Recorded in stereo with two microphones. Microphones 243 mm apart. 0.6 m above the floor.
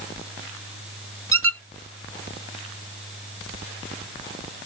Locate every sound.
1.3 s a squeak: 55° right (ahead or behind), 0.7 m